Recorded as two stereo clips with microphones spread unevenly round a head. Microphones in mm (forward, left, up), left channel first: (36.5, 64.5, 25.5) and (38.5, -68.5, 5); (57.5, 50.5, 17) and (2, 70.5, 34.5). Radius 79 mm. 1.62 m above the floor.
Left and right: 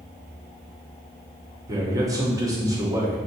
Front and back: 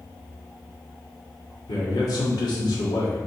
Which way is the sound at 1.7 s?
20° right.